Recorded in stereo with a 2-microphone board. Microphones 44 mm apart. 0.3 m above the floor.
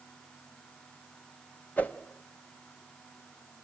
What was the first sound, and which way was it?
A whoosh, 35° left (ahead or behind).